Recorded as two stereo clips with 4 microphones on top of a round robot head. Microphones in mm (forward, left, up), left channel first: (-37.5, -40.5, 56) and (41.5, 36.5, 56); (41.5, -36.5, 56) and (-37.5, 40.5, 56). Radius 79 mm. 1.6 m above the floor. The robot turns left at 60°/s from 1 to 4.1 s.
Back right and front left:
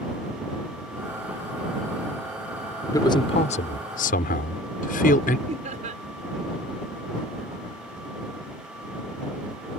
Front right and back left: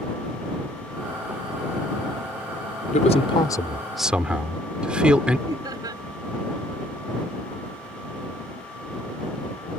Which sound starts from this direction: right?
A man speaking, at 2.9 s.